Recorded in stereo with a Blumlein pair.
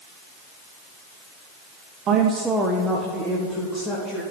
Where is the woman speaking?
30° right, 0.7 m; by 4.2 s 15° left, 2.5 m.